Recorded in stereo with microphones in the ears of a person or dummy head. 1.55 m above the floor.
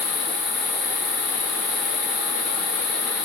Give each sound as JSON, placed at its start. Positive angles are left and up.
{"t": 0.0, "sound": "an insect", "side_deg": 55, "distance_m": 1.5}